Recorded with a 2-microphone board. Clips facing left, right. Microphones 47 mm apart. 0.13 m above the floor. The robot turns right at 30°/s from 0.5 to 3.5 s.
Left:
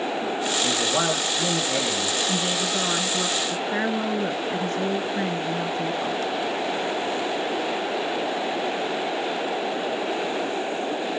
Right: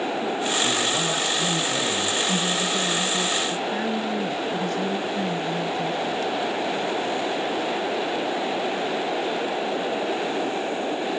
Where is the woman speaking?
30° left, 1.3 m; by 6.2 s 65° left, 1.3 m.